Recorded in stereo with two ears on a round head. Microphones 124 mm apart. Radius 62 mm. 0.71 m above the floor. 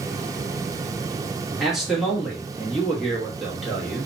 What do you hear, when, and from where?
1.6 s a man speaking: 5° right (ahead or behind), 1.0 m